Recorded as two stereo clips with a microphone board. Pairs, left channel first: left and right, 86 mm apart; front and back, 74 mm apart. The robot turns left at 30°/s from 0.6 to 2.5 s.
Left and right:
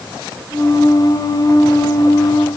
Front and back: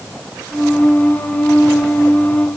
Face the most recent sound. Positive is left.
No sound to turn to.